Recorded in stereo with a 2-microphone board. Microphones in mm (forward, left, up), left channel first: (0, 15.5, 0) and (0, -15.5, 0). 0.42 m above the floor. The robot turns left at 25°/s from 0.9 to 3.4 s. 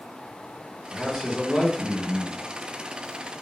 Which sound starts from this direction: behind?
A man speaking, at 0.9 s.